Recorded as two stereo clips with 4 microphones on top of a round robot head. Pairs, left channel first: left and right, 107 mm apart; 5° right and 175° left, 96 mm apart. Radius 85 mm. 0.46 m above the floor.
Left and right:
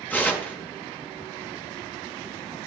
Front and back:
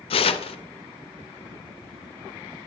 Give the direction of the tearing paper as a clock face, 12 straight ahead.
12 o'clock.